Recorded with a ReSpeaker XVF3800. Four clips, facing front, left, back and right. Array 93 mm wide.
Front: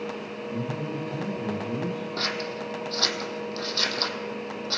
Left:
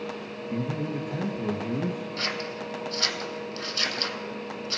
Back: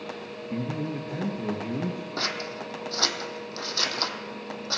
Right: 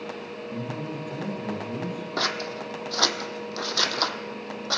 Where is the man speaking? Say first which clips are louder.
Left 4 dB, back 1 dB; 140° left, 2 m.